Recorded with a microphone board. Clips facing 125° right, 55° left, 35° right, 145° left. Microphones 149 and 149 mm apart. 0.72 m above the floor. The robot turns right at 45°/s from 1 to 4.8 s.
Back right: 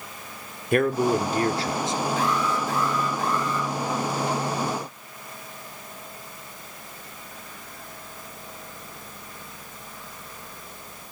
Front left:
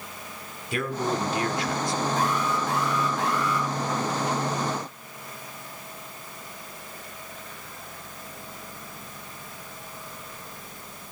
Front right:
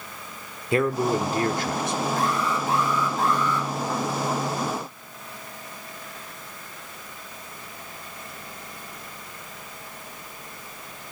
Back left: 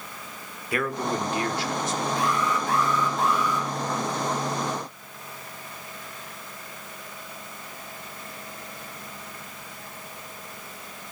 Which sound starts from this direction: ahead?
An alarm, at 2.2 s.